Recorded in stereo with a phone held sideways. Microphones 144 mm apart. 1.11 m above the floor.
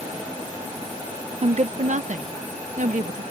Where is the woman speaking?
45° right (ahead or behind); by 3.2 s 65° right (ahead or behind).